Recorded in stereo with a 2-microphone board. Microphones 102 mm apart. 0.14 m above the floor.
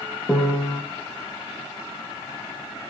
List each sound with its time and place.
0.3 s a piano: 10° left (ahead or behind), 1.3 m